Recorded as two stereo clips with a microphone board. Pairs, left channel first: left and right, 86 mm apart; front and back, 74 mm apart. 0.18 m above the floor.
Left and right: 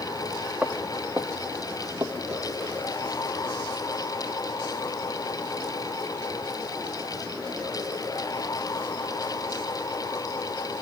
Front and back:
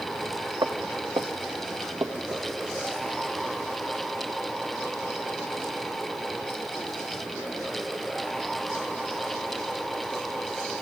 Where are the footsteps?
160° right, 2.5 m; by 2.5 s 130° right, 2.5 m.